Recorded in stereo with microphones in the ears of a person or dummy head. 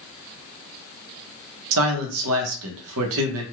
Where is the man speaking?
75° right (ahead or behind), 0.7 m.